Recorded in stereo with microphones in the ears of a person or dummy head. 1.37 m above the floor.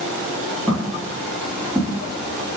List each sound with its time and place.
0.7 s footsteps: centre (ahead or behind), 4.5 m